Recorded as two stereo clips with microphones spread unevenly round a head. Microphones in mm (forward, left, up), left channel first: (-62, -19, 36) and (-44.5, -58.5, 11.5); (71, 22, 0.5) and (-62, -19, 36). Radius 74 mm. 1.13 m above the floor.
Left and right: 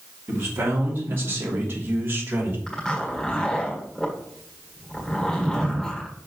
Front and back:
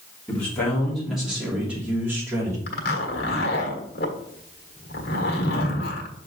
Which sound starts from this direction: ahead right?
A man speaking, at 0.3 s.